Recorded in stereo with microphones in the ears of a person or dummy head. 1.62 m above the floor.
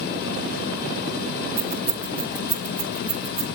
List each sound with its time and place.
1.6 s keys jangling: 5° left (ahead or behind), 2 m; by 3.5 s 15° left (ahead or behind), 3 m